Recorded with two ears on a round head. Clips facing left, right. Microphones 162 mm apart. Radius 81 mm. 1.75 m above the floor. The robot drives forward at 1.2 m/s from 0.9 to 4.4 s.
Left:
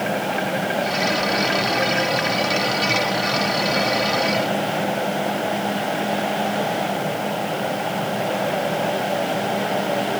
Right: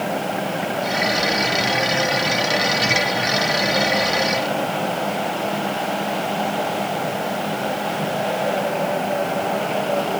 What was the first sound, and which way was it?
Only background noise.